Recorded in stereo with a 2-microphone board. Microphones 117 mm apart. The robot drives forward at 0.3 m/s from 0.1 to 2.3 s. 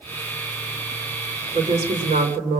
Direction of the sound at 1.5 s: 65° right (ahead or behind).